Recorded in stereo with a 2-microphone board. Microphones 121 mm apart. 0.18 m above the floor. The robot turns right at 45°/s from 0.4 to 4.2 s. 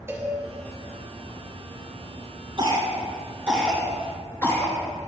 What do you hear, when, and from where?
0.1 s a cowbell: 20° right (ahead or behind), 2.5 m
2.6 s a cough: 45° right (ahead or behind), 3 m; by 4.7 s 20° left (ahead or behind), 3 m